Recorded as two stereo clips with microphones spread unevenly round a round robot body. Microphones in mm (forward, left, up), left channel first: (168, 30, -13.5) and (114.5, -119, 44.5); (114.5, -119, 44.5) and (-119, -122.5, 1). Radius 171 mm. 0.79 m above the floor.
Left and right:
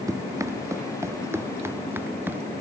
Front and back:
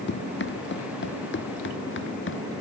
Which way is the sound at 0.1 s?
40° right.